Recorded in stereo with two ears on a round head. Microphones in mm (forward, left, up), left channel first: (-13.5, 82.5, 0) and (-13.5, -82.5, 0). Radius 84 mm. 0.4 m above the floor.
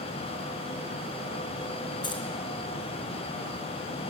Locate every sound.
2.0 s keys jangling: 25° left (ahead or behind), 4 m